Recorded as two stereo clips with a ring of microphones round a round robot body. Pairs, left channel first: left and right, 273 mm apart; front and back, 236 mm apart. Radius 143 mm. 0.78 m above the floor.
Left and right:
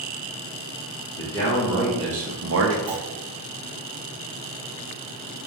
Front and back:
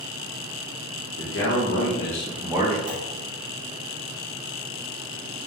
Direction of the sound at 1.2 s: 15° left.